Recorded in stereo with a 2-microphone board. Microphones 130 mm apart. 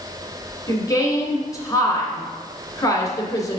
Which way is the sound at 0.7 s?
25° left (ahead or behind).